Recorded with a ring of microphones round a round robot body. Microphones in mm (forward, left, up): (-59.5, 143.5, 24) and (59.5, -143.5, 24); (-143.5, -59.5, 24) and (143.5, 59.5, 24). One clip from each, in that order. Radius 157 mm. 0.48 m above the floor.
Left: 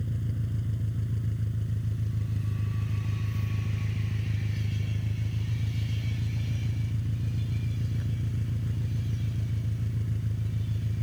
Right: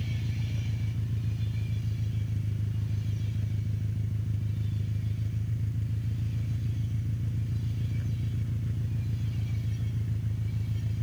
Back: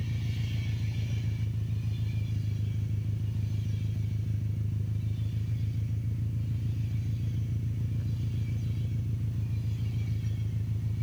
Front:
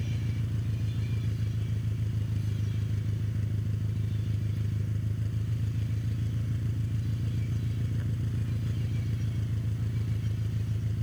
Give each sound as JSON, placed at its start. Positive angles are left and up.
{"t": 0.0, "sound": "an engine running", "azimuth_deg": 35}